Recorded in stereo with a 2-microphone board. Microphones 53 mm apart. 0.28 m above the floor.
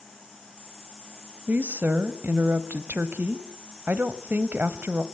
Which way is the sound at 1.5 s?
35° right (ahead or behind).